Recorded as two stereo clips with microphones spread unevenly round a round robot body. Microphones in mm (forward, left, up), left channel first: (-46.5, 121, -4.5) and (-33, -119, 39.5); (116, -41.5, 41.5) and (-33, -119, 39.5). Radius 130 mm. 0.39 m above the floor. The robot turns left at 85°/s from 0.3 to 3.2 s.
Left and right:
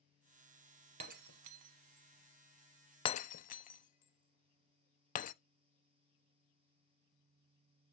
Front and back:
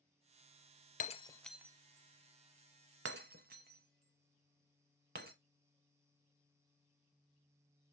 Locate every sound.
1.0 s breaking glass: 20° right, 0.6 m; by 5.3 s 155° left, 0.6 m